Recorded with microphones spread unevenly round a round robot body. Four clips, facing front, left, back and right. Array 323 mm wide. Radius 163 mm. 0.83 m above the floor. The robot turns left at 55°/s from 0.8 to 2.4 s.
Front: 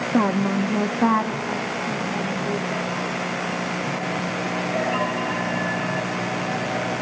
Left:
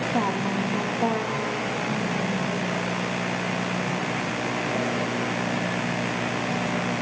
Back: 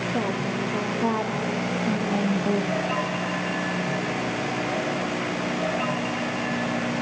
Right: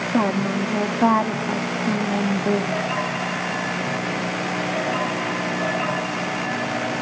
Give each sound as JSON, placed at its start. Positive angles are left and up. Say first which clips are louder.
{"t": 0.1, "sound": "a woman speaking", "louder": "right 6 dB, front 9 dB", "azimuth_deg": -35, "distance_m": 1.5}